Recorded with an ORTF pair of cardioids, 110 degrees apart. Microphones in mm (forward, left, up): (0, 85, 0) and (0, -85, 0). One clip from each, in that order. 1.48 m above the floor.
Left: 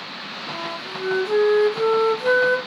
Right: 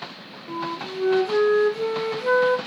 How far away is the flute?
About 2 m.